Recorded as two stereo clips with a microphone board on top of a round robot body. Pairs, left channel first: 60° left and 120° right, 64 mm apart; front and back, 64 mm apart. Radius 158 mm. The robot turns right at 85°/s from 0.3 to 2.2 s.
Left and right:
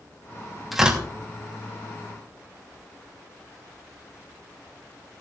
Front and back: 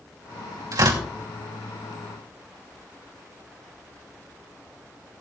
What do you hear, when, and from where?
0.7 s tearing paper: 155° left, 2.5 m; by 1.0 s straight behind, 2.5 m